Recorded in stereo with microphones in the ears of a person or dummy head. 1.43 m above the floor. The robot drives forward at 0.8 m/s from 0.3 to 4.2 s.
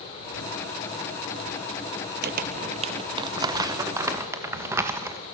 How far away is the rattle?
No rattle in this recording.